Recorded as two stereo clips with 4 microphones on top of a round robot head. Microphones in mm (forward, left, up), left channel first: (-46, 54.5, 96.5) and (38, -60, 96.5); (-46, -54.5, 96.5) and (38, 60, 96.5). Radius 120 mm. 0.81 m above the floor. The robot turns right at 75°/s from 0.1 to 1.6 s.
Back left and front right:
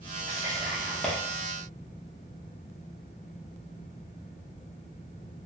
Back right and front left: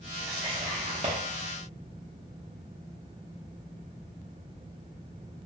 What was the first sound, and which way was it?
Whispering, 15° right.